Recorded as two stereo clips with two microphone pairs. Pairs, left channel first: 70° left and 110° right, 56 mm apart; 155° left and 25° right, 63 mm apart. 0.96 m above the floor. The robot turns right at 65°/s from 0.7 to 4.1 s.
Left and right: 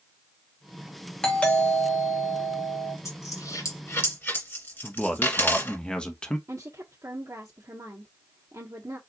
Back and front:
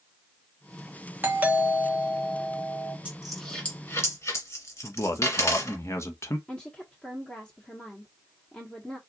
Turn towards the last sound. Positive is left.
turn(degrees=-130)